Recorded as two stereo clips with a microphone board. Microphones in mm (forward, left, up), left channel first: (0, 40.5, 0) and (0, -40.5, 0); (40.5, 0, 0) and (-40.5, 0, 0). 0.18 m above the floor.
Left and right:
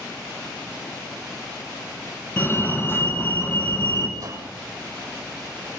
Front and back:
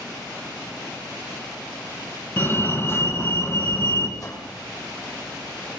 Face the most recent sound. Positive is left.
turn(degrees=-45)